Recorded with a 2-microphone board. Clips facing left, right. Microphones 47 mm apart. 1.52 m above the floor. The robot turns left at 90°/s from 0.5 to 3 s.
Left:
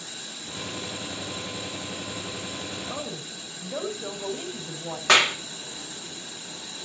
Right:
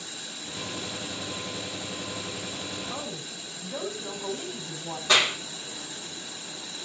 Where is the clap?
70° left (ahead or behind), 3 m.